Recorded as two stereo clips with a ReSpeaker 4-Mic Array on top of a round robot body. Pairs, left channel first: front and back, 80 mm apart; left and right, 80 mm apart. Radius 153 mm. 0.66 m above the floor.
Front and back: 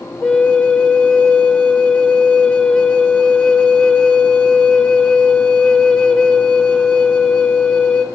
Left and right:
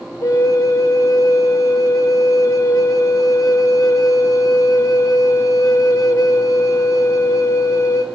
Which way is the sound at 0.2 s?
75° left.